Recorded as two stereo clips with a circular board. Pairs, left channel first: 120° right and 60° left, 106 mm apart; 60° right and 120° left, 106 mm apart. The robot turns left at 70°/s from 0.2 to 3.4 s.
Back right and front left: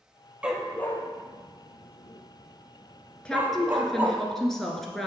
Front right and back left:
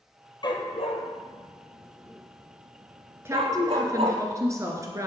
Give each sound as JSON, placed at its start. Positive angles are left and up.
{"t": 0.4, "sound": "a dog barking", "azimuth_deg": -20, "distance_m": 1.0}
{"t": 3.2, "sound": "a woman speaking", "azimuth_deg": 165, "distance_m": 1.5}